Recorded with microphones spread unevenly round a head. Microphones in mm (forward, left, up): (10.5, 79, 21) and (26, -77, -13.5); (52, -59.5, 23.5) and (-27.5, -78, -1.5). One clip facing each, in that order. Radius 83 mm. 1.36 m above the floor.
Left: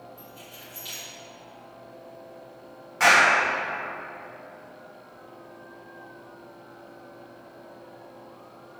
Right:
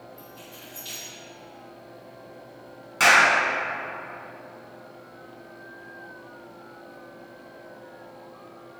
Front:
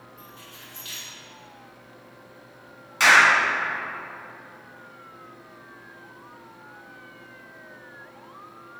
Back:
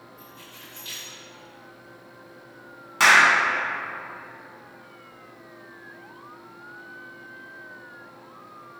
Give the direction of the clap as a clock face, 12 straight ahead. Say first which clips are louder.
Even, even; 4 o'clock.